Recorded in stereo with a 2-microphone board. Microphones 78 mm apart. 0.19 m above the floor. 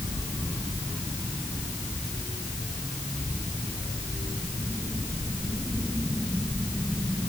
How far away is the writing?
No writing in this recording.